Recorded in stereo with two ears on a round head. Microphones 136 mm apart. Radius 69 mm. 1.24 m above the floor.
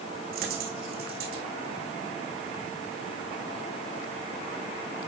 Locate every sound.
0.3 s a dropped coin: 70° right (ahead or behind), 4 m